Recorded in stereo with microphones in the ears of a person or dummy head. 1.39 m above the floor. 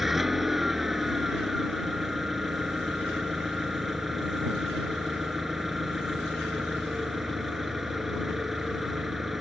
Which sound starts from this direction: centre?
An engine running, at 0.0 s.